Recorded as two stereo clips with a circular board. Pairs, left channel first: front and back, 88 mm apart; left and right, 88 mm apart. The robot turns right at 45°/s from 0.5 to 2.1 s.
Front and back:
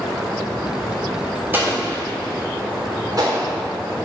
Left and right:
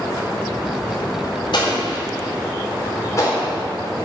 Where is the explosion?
115° left, 3.5 m; by 3.5 s 140° left, 3.5 m.